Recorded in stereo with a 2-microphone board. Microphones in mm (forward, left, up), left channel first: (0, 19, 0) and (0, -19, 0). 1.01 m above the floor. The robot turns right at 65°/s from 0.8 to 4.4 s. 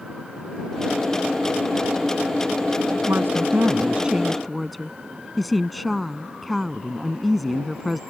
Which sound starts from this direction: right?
A woman speaking, at 3.1 s.